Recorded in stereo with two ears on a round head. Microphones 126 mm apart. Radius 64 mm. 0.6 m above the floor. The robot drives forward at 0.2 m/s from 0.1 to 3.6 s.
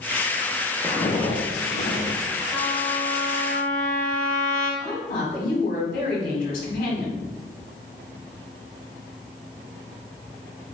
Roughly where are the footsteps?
Centre.